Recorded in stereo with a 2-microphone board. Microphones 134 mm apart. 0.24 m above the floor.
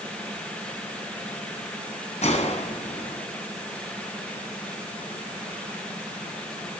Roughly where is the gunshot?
Left.